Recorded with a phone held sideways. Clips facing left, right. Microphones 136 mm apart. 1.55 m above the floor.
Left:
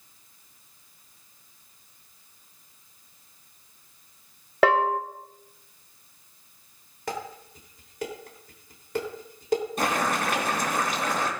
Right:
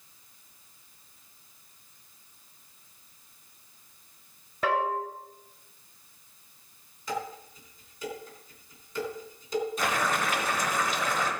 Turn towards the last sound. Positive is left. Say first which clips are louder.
# left 2 dB
turn(degrees=55)  # may be behind; listen again after turning